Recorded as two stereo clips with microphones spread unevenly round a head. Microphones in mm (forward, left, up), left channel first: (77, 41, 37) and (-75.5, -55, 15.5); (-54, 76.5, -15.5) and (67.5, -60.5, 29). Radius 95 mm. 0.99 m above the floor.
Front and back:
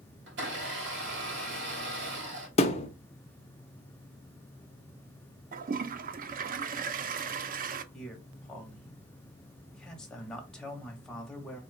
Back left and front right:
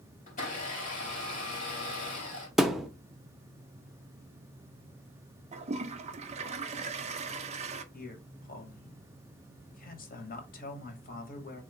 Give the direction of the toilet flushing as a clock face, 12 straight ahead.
4 o'clock.